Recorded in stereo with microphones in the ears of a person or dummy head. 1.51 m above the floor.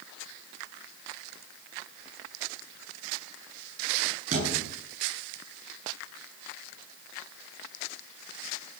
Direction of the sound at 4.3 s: 45° right (ahead or behind).